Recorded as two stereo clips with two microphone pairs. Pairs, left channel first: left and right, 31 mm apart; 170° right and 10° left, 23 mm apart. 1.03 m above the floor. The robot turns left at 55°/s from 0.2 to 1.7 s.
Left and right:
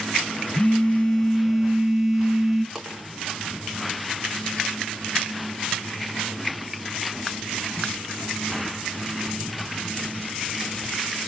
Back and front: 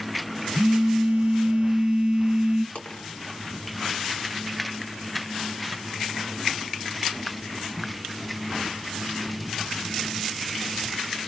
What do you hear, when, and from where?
0.5 s a phone buzzing: 55° left, 0.6 m; by 2.6 s 10° right, 0.6 m
2.8 s a dropped coin: straight behind, 2.0 m